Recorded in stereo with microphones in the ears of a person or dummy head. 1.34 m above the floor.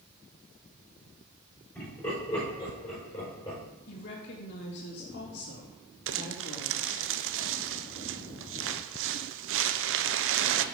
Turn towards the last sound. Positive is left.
turn(degrees=-65)  # may be behind; listen again after turning